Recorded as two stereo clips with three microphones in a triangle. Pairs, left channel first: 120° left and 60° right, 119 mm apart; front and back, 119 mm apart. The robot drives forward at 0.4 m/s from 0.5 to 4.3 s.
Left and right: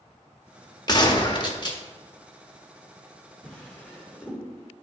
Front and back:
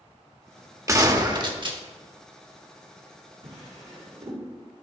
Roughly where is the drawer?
Behind.